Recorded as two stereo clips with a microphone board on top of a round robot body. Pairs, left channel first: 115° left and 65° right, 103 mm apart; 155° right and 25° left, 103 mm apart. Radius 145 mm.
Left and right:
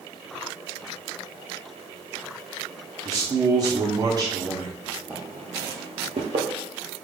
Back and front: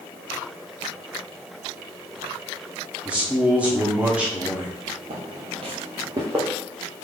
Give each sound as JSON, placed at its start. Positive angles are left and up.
{"t": 3.0, "sound": "a man speaking", "azimuth_deg": -50, "distance_m": 1.0}
{"t": 5.1, "sound": "footsteps", "azimuth_deg": 10, "distance_m": 0.8}